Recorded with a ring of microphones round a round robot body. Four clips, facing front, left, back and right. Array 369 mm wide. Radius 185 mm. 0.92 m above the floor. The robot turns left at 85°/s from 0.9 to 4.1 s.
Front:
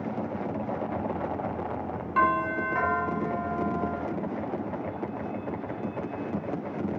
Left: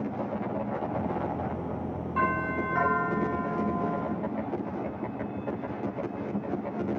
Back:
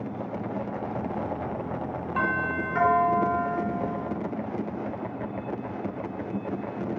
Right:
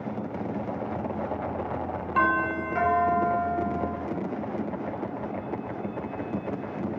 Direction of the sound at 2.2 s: 70° right.